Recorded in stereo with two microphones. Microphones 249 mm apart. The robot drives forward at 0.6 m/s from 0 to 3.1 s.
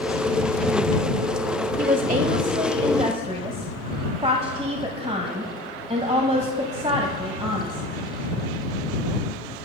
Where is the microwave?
No microwave in this recording.